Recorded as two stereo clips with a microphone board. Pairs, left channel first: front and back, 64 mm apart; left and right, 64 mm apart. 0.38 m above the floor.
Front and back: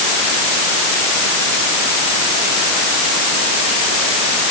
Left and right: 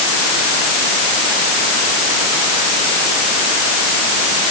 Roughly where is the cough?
No cough in this recording.